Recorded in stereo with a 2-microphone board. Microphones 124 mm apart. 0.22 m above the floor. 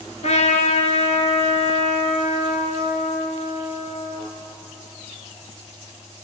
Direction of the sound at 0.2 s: 65° left (ahead or behind).